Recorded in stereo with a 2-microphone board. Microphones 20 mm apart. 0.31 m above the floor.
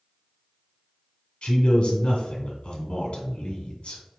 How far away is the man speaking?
About 1.6 m.